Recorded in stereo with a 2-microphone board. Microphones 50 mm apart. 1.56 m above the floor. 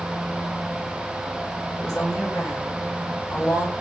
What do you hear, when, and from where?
1.8 s a woman speaking: 65° left (ahead or behind), 6.5 m